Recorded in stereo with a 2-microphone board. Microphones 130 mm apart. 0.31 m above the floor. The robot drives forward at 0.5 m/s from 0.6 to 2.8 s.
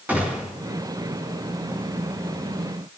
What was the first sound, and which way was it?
A gunshot, 10° right (ahead or behind).